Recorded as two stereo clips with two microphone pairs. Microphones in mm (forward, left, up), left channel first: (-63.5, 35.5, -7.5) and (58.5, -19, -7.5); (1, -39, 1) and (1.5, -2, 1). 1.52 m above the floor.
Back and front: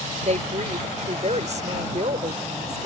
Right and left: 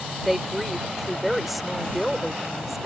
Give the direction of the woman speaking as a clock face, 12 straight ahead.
12 o'clock.